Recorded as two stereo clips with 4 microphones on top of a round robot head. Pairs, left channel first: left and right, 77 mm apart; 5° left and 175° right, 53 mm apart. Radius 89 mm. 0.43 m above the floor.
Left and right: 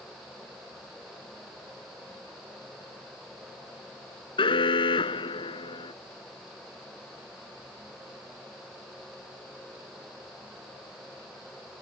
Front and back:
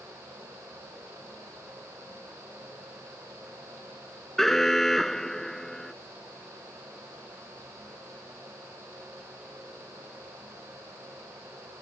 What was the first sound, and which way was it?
An alarm, 90° left.